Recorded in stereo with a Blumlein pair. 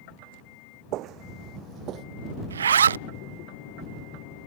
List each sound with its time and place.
0.9 s footsteps: 35° right
2.5 s a zipper: 70° right